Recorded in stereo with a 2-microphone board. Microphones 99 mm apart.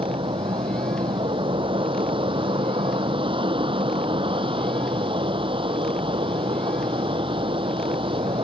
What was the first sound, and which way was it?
An aircraft, 60° right (ahead or behind).